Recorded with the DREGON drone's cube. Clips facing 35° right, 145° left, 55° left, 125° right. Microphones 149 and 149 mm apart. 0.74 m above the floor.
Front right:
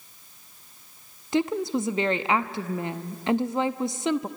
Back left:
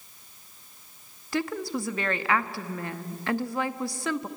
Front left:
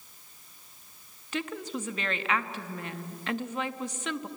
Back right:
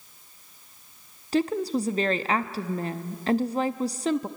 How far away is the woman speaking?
About 0.7 m.